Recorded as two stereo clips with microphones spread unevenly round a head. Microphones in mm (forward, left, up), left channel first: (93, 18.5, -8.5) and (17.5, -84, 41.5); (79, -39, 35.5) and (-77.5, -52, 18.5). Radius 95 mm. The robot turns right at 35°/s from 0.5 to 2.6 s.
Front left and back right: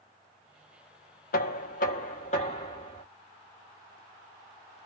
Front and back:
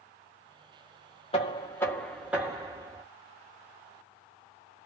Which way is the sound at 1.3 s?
65° left.